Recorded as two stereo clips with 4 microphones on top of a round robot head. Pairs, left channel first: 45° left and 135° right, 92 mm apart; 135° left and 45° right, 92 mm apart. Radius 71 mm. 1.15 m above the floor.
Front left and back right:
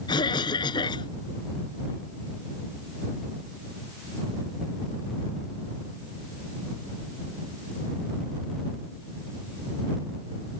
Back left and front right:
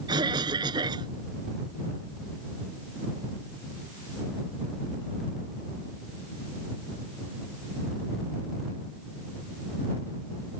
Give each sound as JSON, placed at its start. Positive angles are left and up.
{"t": 0.1, "sound": "a cough", "azimuth_deg": 0}